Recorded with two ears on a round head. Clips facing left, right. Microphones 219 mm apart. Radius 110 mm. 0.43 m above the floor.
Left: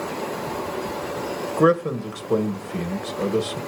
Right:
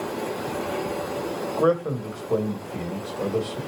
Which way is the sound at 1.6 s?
30° left (ahead or behind).